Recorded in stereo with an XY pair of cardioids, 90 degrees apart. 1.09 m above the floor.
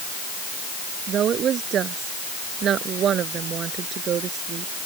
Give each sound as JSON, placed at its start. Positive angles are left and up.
{"t": 1.1, "sound": "a woman speaking", "azimuth_deg": -70}